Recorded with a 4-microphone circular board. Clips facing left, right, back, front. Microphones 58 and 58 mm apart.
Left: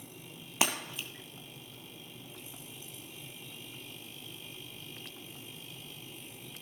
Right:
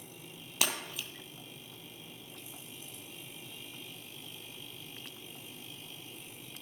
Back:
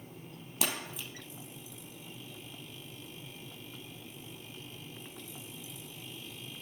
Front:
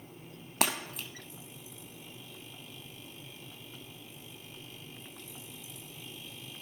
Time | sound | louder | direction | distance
0.6 | breaking glass | left 3 dB, front 4 dB | 25° left | 2.0 m